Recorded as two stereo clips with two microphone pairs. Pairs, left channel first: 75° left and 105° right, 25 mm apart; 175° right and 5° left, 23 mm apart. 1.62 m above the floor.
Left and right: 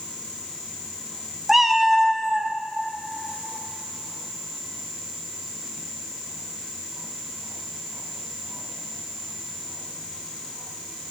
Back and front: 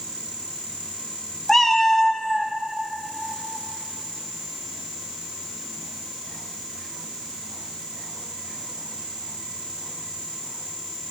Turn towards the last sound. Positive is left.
turn(degrees=-135)